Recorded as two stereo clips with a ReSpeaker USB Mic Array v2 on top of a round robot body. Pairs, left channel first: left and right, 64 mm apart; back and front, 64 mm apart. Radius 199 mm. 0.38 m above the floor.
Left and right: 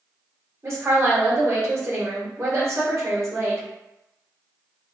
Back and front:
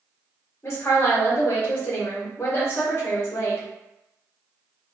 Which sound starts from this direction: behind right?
A woman speaking, at 0.6 s.